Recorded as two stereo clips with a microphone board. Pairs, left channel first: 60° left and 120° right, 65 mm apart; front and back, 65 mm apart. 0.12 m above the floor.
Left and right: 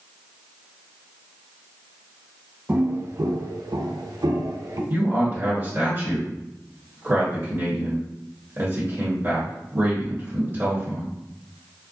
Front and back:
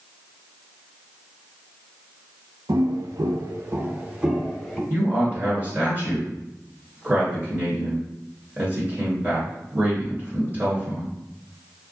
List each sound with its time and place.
2.7 s footsteps: straight behind, 0.8 m; by 4.8 s 85° right, 1.0 m
4.9 s a man speaking: 145° right, 1.4 m